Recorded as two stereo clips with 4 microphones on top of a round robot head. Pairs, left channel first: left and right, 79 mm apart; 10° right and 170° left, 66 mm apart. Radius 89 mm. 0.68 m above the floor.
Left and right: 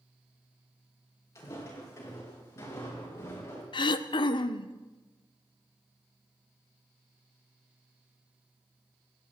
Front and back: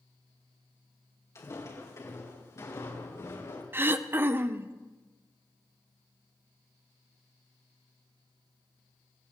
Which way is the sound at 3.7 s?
110° left.